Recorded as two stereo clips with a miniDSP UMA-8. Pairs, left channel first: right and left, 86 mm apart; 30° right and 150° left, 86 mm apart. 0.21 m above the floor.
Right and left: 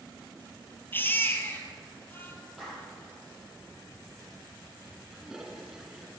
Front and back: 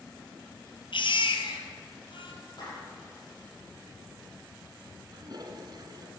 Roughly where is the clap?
Ahead.